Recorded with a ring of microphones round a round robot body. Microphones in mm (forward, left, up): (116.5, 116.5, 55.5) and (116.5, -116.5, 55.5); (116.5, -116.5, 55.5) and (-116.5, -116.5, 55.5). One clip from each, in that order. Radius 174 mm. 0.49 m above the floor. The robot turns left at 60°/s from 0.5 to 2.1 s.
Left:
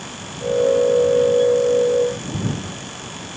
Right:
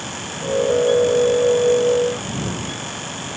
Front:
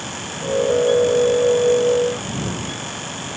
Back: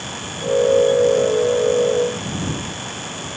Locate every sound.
Only background noise.